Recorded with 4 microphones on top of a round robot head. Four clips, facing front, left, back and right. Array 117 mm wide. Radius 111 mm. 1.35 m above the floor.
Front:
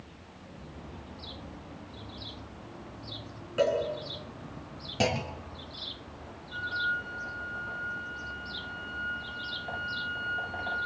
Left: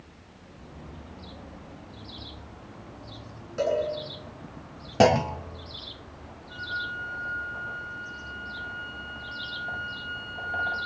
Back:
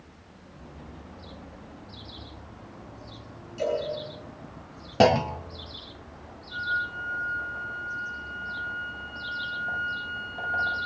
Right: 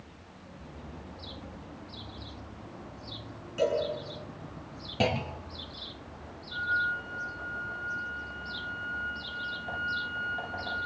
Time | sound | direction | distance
3.6 | a cowbell | 30° left | 9 m
5.0 | a clunk | 135° left | 0.5 m
6.5 | a flute | 95° left | 9 m